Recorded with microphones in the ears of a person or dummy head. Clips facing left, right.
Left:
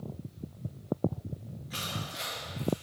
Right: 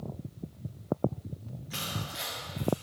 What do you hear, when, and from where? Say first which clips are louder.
1.7 s crushing: right 1 dB; centre (ahead or behind), 4.5 m